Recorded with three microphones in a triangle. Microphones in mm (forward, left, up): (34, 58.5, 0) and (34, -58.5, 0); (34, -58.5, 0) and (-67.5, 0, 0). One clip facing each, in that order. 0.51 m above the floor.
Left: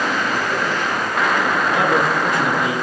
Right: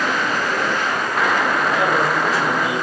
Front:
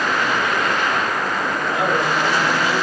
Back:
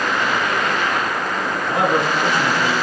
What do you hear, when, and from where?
1.7 s a man speaking: 115° left, 6.5 m